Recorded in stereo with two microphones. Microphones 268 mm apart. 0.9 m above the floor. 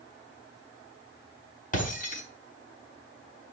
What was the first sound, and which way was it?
Breaking glass, 30° left (ahead or behind).